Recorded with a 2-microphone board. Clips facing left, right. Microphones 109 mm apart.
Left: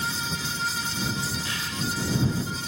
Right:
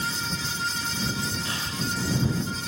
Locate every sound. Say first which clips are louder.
1.4 s breathing: even; 30° right (ahead or behind)